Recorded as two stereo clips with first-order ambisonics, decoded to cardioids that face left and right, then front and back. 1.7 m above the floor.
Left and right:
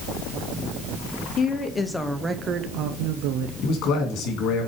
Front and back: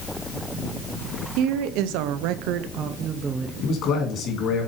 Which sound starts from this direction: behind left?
A woman speaking, at 1.4 s.